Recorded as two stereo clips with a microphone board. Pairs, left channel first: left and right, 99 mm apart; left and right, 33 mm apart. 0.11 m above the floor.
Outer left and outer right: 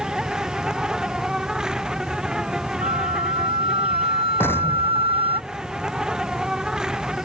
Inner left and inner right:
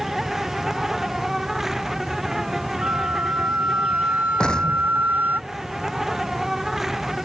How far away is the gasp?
I don't hear a gasp.